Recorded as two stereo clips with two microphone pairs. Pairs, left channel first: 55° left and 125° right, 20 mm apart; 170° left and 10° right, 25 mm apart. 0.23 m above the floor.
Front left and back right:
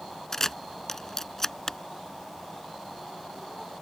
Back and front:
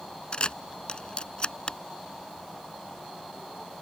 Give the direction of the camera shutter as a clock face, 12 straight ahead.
8 o'clock.